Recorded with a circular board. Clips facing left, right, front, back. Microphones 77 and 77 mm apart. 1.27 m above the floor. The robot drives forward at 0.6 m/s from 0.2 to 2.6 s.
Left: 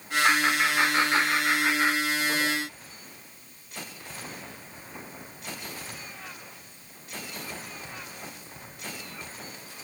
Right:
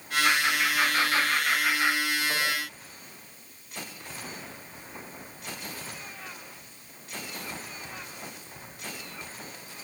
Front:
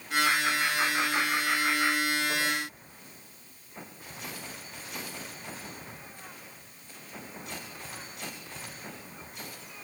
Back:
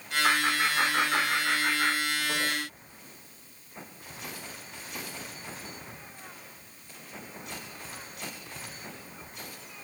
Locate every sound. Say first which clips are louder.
0.2 s laughter: left 3 dB, back 3 dB; 150° left, 4.5 m; by 2.5 s 155° left, 5.5 m